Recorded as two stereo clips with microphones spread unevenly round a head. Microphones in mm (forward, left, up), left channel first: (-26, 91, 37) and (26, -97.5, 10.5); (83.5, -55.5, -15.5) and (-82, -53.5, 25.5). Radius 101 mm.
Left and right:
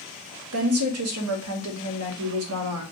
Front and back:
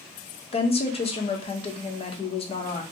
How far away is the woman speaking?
About 0.9 m.